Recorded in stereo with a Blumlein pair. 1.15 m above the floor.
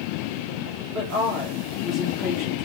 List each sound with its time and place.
0.9 s a woman speaking: 25° right, 1.5 m